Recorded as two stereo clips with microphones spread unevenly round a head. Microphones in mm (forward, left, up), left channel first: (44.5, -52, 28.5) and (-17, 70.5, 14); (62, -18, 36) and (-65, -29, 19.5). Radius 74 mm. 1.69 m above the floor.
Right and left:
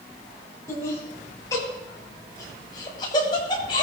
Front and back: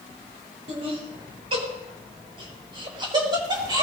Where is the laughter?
135° right, 7.5 m; by 3.8 s 120° right, 6.5 m.